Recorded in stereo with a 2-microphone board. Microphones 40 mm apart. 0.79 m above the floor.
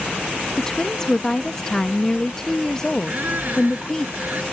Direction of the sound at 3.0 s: 50° right (ahead or behind).